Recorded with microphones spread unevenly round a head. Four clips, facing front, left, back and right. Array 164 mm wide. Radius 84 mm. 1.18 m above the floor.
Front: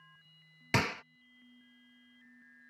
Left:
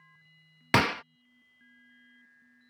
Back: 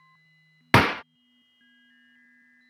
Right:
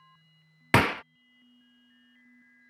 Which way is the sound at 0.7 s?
165° right.